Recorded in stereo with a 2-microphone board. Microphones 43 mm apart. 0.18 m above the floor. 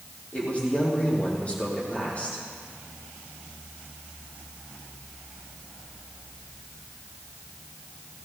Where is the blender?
I don't hear a blender.